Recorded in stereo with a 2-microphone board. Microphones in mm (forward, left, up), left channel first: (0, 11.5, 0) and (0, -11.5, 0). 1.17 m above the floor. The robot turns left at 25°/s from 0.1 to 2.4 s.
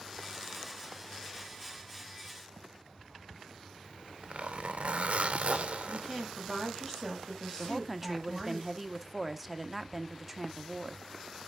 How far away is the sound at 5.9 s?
About 5 m.